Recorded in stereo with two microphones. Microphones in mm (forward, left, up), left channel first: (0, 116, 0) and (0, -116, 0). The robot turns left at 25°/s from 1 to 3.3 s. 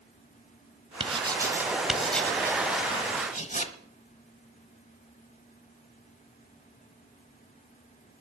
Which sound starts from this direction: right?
Writing, at 1.0 s.